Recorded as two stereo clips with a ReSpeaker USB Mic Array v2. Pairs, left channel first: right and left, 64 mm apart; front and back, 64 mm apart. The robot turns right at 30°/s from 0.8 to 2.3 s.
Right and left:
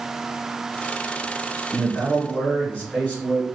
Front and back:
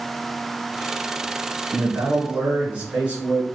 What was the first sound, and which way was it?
A man speaking, 150° right.